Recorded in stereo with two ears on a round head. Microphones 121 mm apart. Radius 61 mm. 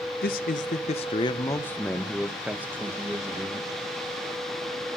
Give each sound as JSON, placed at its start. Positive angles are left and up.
{"t": 0.2, "sound": "a man speaking", "side_deg": 70, "distance_m": 0.9}